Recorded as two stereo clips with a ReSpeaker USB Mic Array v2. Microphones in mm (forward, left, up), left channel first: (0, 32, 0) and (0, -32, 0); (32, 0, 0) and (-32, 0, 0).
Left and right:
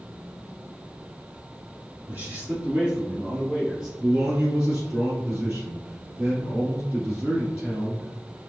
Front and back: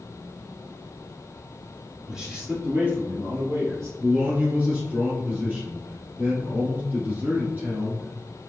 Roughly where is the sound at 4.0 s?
Behind right.